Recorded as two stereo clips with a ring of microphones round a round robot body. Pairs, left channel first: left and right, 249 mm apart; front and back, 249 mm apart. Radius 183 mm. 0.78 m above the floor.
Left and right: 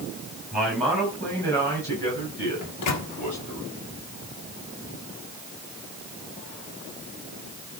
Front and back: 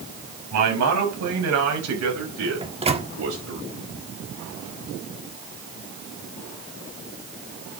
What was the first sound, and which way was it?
A man speaking, straight behind.